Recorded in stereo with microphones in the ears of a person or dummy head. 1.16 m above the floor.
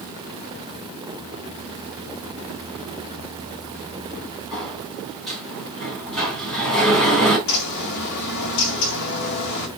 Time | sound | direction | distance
4.5 | a sliding door | centre (ahead or behind) | 4.5 m
7.5 | a bird | 55° left (ahead or behind) | 1.8 m